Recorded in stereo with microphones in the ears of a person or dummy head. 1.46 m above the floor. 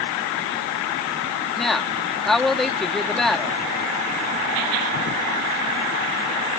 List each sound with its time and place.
1.6 s a woman speaking: centre (ahead or behind)